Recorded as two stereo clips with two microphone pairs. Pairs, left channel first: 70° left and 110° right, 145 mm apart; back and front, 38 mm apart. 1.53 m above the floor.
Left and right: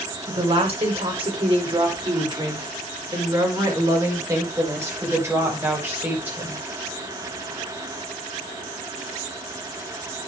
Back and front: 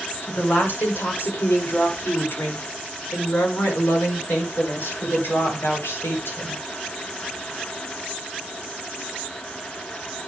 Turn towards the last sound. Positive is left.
turn(degrees=175)